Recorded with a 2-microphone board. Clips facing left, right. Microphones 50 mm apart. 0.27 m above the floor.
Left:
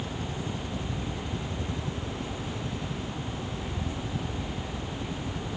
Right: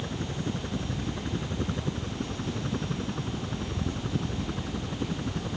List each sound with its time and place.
0.0 s a helicopter: 45° right (ahead or behind); by 5.6 s 60° right (ahead or behind)